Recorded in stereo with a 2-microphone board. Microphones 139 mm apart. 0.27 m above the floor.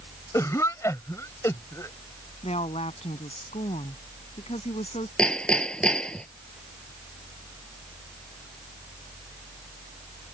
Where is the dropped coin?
I don't hear a dropped coin.